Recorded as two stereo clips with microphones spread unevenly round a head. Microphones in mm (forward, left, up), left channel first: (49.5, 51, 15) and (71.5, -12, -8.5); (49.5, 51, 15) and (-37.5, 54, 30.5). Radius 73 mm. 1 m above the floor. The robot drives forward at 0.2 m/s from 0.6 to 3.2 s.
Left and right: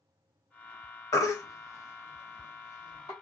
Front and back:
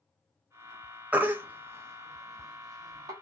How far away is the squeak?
No squeak in this recording.